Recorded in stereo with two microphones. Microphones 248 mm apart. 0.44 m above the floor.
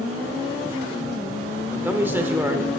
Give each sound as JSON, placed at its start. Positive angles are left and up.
{"t": 1.7, "sound": "a man speaking", "side_deg": -10, "distance_m": 1.1}